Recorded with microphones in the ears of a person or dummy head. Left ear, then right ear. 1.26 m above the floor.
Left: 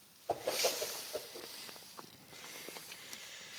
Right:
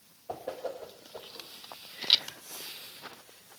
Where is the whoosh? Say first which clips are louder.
Left 3 dB; 60° left (ahead or behind), 1.1 m.